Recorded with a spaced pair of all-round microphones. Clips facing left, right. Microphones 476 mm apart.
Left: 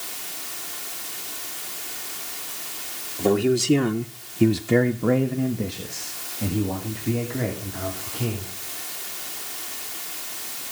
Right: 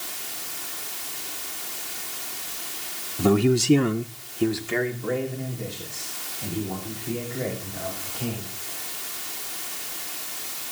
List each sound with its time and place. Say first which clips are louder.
3.2 s a man speaking: even; 30° right (ahead or behind), 0.9 m; by 8.5 s 75° left (ahead or behind), 3.5 m